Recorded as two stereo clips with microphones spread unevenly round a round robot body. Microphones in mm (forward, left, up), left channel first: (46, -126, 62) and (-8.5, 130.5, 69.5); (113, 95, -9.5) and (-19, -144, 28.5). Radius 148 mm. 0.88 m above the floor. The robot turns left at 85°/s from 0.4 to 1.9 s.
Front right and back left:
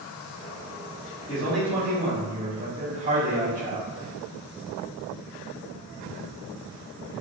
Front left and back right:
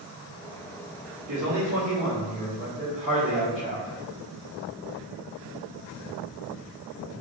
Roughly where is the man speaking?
Behind right.